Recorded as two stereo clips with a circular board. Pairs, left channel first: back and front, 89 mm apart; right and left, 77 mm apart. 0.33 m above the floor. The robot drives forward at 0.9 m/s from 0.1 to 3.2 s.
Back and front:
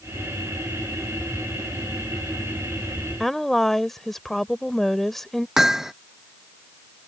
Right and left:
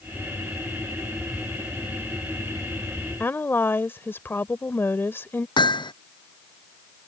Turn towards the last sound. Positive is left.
turn(degrees=-85)